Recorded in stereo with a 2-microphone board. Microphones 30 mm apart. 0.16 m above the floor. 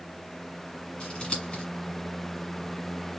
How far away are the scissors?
About 1.5 m.